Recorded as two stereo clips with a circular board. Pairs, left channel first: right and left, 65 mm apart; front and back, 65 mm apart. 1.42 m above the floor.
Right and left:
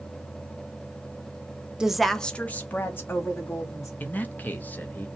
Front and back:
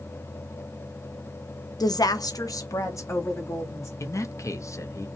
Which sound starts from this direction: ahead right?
A man speaking, at 4.0 s.